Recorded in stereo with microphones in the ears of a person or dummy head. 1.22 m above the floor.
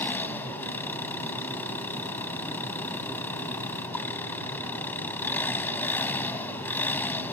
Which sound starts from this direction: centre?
An engine running, at 0.0 s.